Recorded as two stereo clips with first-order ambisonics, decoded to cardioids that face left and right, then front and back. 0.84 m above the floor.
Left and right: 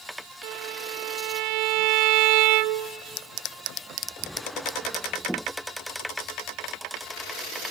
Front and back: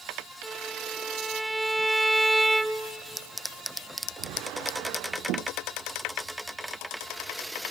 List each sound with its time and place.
0.4 s a violin: 95° right, 0.6 m